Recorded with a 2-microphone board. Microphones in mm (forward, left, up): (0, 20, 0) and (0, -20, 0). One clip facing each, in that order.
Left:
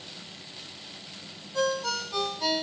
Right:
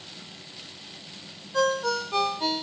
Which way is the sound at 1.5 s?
50° right (ahead or behind).